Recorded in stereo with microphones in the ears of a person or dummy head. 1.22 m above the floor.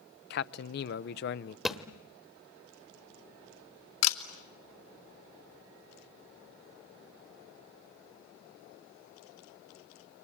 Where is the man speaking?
55° left (ahead or behind), 0.7 m.